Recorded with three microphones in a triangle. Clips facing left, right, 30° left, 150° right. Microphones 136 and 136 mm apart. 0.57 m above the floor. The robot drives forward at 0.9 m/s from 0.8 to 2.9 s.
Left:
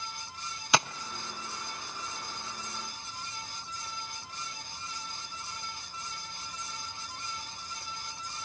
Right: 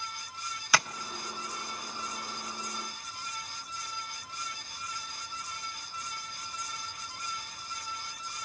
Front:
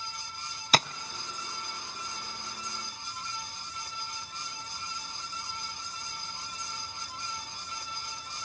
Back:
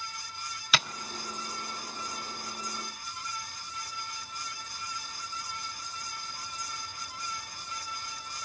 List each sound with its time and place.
0.7 s tapping: 35° left, 0.5 m; by 0.9 s 45° left, 0.5 m